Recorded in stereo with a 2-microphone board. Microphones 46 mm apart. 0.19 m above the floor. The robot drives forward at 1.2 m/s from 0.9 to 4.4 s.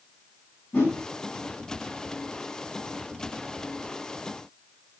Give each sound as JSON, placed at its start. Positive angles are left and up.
{"t": 0.7, "sound": "a whoosh", "side_deg": 25, "distance_m": 7.0}